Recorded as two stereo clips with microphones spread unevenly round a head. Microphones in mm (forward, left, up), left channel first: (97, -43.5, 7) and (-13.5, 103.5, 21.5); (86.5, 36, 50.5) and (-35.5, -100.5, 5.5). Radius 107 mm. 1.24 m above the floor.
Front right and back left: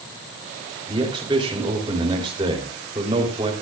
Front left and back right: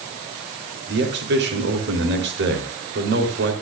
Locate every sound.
0.9 s a man speaking: 165° right, 3.5 m